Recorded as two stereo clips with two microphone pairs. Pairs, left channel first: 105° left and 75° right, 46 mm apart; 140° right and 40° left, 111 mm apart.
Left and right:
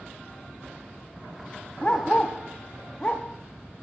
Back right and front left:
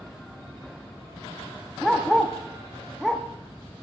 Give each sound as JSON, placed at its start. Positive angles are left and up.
{"t": 1.8, "sound": "a dog barking", "azimuth_deg": 130, "distance_m": 0.9}